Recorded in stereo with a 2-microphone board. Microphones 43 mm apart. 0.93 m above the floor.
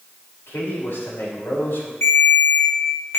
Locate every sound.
0.5 s a man speaking: 65° left (ahead or behind), 4 m
2.0 s a ringtone: 80° left, 2 m